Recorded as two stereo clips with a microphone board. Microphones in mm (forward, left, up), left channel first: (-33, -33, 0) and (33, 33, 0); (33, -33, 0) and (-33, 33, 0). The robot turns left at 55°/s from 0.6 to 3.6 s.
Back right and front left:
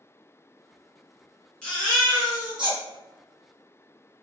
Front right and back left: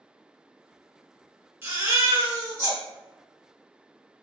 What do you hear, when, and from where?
1.6 s a baby crying: 160° left, 1.2 m; by 2.8 s 95° left, 1.2 m